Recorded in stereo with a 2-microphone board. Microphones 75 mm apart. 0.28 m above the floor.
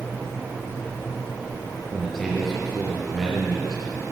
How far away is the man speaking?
About 4.5 m.